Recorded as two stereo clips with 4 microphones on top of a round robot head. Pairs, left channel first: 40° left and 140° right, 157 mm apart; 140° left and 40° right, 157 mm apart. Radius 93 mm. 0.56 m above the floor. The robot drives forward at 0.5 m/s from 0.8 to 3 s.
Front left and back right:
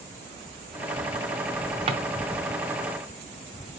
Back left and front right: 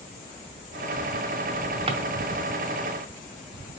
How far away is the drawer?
About 0.6 m.